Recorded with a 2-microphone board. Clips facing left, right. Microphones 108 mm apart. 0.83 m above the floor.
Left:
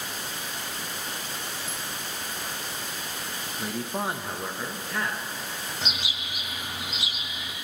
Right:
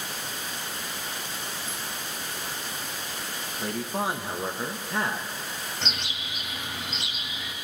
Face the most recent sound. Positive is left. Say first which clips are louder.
# even
turn(degrees=10)  # may be behind; listen again after turning